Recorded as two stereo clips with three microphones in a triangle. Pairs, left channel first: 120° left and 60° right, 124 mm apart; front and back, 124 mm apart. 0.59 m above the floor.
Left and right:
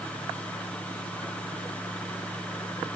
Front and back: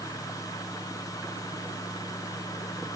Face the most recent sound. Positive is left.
No sound to turn to.